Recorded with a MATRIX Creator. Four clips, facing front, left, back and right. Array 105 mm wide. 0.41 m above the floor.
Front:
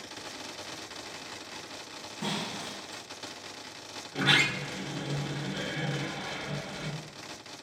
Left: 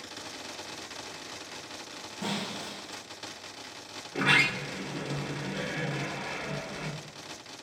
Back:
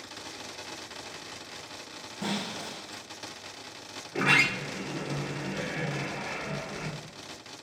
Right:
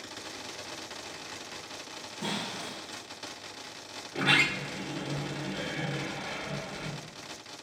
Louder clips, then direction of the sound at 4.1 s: Left 1 dB, back 2 dB; 160° left.